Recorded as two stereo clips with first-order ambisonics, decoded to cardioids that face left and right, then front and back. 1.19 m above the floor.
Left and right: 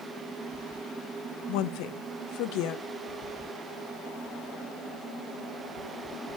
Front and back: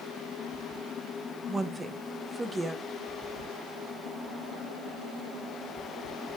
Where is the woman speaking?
100° left, 0.9 m.